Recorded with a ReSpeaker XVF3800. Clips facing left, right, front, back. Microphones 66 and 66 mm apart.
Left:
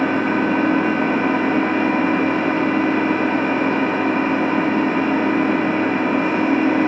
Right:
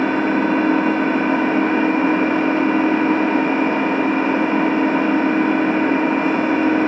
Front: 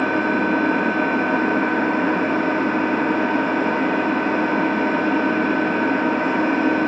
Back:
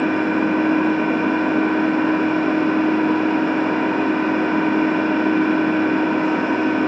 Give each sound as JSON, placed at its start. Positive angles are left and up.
{"t": 0.0, "sound": "an engine running", "azimuth_deg": -45, "distance_m": 1.3}